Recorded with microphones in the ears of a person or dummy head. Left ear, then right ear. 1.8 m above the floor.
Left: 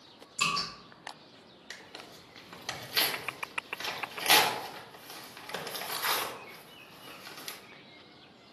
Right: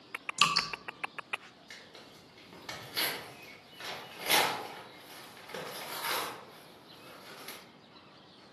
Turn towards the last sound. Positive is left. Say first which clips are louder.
# left 6 dB
turn(degrees=20)  # may be behind; listen again after turning